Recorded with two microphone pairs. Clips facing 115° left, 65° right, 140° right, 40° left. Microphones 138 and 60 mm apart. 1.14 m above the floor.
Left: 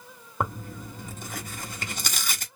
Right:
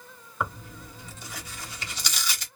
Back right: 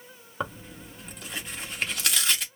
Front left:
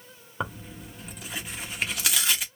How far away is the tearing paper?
About 0.9 m.